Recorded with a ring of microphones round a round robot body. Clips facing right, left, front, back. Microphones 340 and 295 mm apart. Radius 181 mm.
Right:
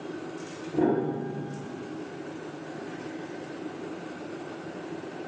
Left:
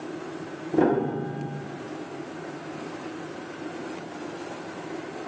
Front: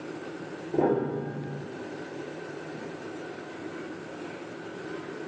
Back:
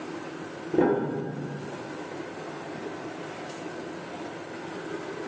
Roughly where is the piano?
Behind left.